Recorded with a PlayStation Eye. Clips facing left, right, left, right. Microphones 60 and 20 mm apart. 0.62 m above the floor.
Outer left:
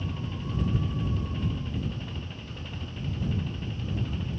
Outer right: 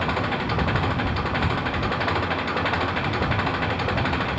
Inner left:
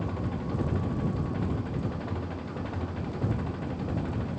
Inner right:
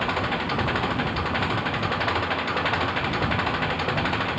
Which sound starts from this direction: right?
An engine running, at 0.0 s.